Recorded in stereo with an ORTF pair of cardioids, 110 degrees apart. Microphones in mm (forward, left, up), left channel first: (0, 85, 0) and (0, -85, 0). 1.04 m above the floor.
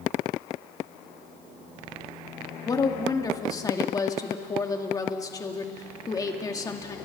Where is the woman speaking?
20° left, 2.5 m.